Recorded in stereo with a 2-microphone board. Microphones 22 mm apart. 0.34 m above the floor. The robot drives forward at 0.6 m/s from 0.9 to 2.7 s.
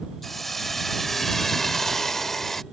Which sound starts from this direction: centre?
A hiss, at 0.2 s.